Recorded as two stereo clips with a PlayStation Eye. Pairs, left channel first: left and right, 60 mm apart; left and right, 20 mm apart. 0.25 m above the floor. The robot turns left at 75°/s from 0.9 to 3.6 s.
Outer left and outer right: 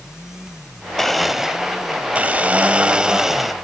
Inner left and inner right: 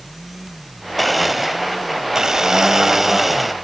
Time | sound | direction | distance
1.0 | a blender | 5° left (ahead or behind) | 0.6 m